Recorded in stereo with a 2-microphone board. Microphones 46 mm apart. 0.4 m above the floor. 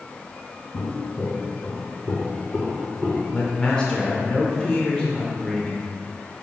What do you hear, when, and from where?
0.7 s footsteps: 70° left (ahead or behind), 1.9 m; by 3.2 s 5° right (ahead or behind), 1.8 m
3.3 s a man speaking: 20° left (ahead or behind), 0.8 m